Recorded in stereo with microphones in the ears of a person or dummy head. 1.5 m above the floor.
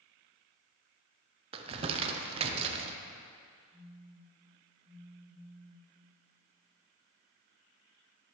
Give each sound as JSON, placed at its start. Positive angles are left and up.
{"t": 1.5, "sound": "crumpling", "side_deg": -30, "distance_m": 0.6}
{"t": 3.7, "sound": "a phone buzzing", "side_deg": -20, "distance_m": 1.6}